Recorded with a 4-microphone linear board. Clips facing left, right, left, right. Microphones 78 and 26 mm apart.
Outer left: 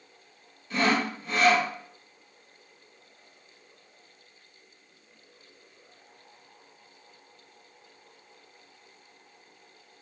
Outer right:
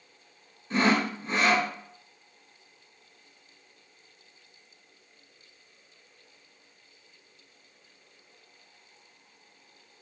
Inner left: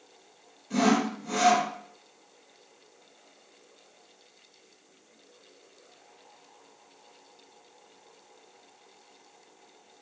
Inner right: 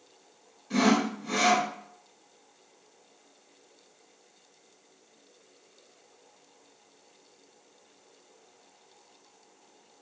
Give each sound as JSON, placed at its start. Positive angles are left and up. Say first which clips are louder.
{"t": 0.7, "sound": "sawing", "louder": "outer right 1 dB, even", "side_deg": -30, "distance_m": 1.9}